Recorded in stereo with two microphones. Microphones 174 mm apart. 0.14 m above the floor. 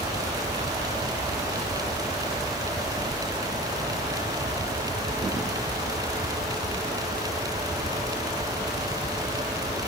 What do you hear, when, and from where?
Only background noise.